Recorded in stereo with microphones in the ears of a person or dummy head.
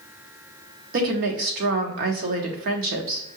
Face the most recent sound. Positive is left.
turn(degrees=-50)  # may be behind; listen again after turning